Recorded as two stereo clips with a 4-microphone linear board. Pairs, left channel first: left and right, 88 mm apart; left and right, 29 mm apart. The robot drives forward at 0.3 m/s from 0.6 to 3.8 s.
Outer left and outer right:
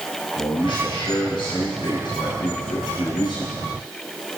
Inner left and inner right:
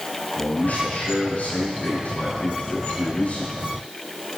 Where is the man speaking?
70° left (ahead or behind), 5 m; by 3.6 s 60° left (ahead or behind), 5.5 m.